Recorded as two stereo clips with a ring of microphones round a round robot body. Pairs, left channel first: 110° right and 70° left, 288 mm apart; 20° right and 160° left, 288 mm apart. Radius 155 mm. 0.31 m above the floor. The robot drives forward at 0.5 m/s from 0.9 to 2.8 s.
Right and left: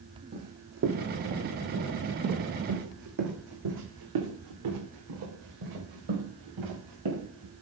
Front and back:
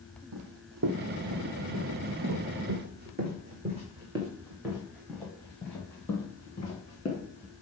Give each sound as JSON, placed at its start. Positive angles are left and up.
{"t": 0.3, "sound": "running footsteps", "azimuth_deg": 130, "distance_m": 1.2}